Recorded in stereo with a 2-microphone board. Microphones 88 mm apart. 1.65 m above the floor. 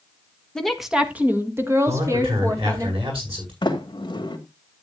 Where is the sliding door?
55° left (ahead or behind), 2 m.